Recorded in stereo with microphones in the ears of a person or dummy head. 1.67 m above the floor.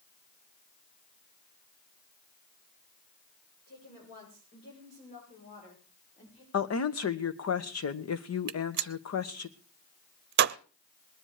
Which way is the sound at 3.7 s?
60° left (ahead or behind).